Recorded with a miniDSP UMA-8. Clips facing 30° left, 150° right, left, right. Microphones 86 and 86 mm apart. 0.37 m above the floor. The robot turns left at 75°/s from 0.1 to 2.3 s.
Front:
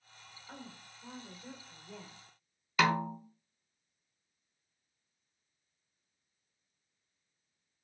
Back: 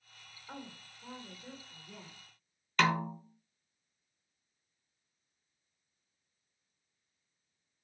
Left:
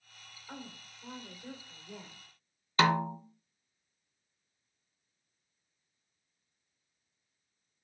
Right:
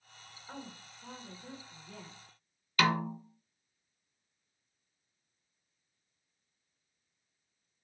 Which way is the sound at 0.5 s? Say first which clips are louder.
Back 3 dB, even; 170° right.